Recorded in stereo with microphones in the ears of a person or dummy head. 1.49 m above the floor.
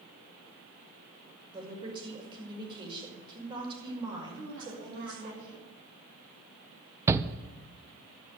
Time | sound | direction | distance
1.5 | a woman speaking | 25° right (ahead or behind) | 5.5 m
4.3 | a woman speaking | 65° right (ahead or behind) | 8 m
7.1 | a shout | 15° right (ahead or behind) | 0.6 m